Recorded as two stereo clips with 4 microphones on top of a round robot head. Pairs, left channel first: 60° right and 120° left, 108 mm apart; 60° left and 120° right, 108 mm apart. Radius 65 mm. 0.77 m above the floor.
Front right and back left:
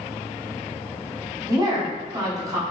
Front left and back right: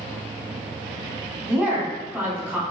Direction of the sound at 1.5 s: 170° left.